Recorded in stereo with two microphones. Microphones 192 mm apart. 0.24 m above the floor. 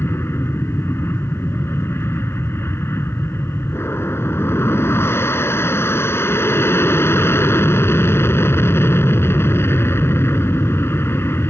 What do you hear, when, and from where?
0.0 s an aircraft: 10° left (ahead or behind)